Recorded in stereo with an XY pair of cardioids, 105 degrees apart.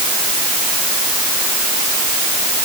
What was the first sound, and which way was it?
Only background noise.